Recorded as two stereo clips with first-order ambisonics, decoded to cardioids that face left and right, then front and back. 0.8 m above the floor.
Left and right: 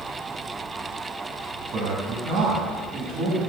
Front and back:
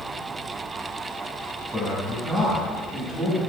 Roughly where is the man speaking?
Right.